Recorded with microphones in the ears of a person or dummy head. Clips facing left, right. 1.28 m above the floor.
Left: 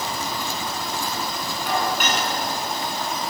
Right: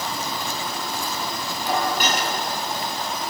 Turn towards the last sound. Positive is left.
turn(degrees=-35)  # may be behind; listen again after turning